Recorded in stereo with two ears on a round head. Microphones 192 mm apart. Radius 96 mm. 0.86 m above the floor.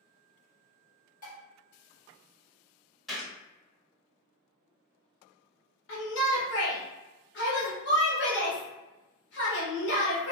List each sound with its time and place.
1.2 s dishes clattering: 40° left (ahead or behind), 1.6 m
3.1 s a gunshot: centre (ahead or behind), 0.9 m
5.9 s a shout: 55° left (ahead or behind), 1.0 m